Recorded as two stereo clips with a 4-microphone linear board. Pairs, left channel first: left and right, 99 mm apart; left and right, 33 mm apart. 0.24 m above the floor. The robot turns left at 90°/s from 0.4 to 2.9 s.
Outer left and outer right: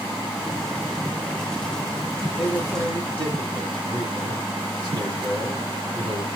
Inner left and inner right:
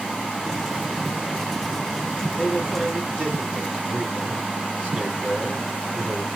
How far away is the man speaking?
About 3.5 m.